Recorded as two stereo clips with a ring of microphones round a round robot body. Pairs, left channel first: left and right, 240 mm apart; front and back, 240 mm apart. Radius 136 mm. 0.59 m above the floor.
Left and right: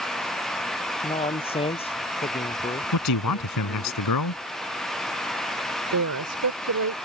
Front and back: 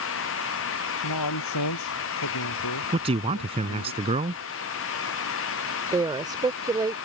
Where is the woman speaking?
105° right.